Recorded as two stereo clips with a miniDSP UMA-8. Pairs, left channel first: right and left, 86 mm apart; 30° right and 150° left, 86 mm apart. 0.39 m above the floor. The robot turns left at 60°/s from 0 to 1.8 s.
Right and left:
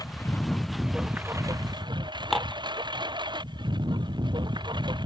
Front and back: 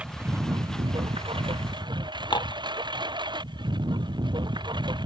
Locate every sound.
0.0 s a lawn mower: 135° right; by 5.1 s 120° left
2.3 s dishes clattering: straight ahead